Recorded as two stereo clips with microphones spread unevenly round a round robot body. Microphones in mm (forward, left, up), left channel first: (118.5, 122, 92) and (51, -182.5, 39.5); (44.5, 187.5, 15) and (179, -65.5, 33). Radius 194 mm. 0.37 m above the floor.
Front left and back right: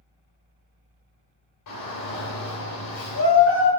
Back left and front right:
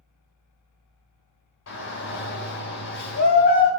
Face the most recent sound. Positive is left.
turn(degrees=105)